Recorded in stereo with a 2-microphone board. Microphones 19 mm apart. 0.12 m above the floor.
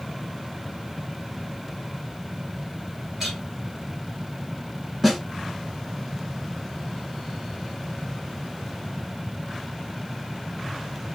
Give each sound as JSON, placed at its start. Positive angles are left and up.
{"t": 3.2, "sound": "a clink", "side_deg": -15, "distance_m": 1.5}
{"t": 5.0, "sound": "a snare drum", "side_deg": -5, "distance_m": 1.2}